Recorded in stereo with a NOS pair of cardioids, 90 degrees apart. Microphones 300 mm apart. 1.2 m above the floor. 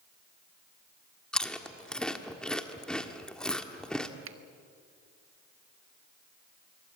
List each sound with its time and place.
1.3 s chewing: 5° left, 1.6 m
4.2 s a finger snap: 45° right, 1.4 m